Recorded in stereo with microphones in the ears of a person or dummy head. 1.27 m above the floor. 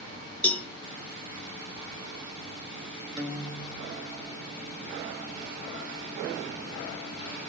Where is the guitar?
30° right (ahead or behind), 1.8 m.